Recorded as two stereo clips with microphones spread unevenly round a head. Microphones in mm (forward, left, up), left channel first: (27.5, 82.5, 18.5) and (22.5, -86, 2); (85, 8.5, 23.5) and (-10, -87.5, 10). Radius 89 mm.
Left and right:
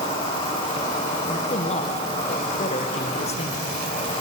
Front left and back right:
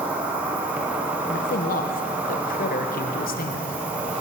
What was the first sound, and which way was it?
An insect, 150° left.